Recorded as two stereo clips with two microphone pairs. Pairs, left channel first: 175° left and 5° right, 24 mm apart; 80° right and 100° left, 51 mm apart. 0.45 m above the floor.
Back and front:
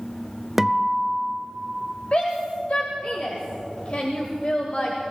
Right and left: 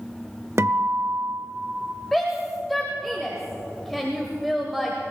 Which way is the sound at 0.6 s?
70° left.